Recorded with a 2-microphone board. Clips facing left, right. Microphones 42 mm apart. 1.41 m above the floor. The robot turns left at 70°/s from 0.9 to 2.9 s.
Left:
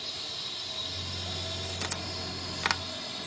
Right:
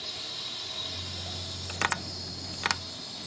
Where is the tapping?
55° right (ahead or behind); by 2.8 s 10° left (ahead or behind).